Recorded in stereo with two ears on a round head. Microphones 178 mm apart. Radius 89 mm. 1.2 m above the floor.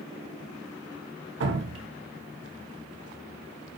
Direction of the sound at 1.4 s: 65° right (ahead or behind).